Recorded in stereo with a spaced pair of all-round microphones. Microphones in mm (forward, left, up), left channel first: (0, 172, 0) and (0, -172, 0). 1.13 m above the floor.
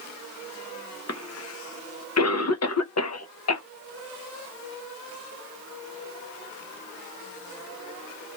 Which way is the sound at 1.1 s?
50° left (ahead or behind).